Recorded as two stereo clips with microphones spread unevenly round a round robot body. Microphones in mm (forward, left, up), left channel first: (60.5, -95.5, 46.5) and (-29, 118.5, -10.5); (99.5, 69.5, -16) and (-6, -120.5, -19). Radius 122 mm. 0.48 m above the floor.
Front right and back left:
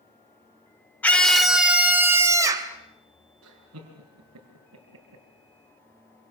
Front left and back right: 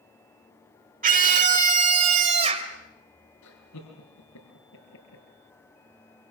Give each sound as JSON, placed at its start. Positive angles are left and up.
{"t": 1.0, "sound": "a scream", "azimuth_deg": -165, "distance_m": 1.9}
{"t": 3.4, "sound": "laughter", "azimuth_deg": 85, "distance_m": 5.5}